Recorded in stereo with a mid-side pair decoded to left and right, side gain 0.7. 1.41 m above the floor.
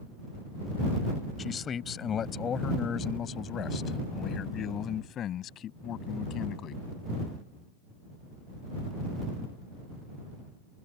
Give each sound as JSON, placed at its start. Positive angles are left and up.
{"t": 1.4, "sound": "a man speaking", "azimuth_deg": 30}